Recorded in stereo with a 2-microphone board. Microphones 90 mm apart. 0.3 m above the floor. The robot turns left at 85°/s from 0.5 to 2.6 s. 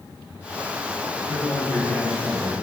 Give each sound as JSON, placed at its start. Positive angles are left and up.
{"t": 1.3, "sound": "a man speaking", "azimuth_deg": 70, "distance_m": 4.0}